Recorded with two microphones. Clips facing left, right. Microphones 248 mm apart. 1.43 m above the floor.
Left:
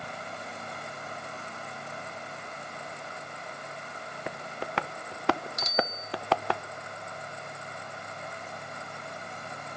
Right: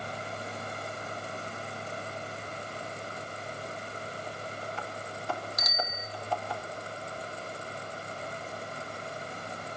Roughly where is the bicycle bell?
Left.